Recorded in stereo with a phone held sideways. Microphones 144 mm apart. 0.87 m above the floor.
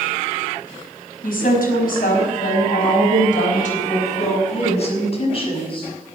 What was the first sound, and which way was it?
A woman speaking, 85° left.